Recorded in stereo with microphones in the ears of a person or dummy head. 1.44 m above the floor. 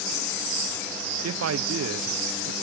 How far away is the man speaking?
About 0.7 m.